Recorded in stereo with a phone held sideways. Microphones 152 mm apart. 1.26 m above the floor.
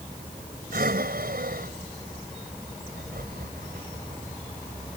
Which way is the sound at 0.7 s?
80° right.